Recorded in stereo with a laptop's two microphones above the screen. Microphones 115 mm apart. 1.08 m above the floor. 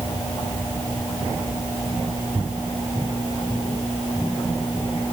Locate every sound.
Only background noise.